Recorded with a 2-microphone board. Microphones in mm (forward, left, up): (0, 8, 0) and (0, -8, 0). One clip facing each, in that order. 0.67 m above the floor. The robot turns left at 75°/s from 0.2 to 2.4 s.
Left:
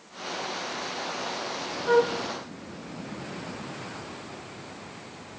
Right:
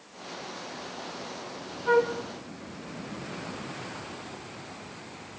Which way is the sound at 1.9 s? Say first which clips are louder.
Left 1 dB; 20° right (ahead or behind).